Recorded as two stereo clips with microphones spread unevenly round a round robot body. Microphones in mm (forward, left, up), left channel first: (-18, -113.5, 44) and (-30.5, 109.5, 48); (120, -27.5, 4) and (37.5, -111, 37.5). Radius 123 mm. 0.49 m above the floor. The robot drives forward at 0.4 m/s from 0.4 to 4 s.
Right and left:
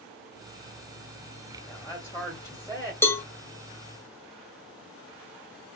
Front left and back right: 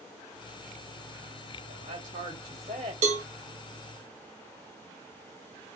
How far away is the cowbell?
About 0.5 m.